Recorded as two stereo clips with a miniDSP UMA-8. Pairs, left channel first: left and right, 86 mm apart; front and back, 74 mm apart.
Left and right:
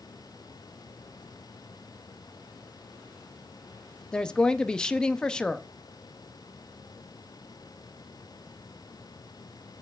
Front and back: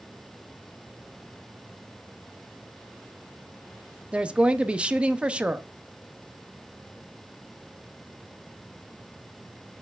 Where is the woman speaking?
150° left, 0.8 m.